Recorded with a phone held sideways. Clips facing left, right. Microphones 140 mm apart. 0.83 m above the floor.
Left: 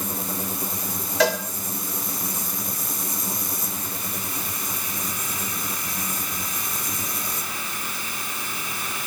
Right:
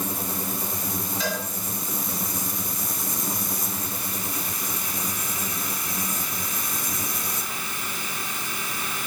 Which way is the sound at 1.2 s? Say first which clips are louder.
Left 10 dB; 80° left.